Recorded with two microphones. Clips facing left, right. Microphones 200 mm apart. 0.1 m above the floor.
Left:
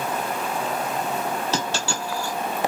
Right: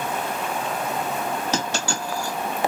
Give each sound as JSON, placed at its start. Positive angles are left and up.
{"t": 1.5, "sound": "a dropped coin", "side_deg": -15, "distance_m": 1.1}